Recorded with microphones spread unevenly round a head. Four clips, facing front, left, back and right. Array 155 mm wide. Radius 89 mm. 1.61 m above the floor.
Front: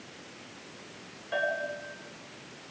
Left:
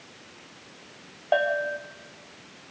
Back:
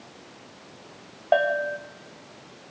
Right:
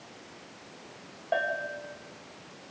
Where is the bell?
170° left, 1.5 m.